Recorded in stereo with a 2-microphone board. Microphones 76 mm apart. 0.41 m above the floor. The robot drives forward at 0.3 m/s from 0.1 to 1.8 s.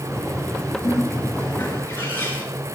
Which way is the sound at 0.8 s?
30° left (ahead or behind).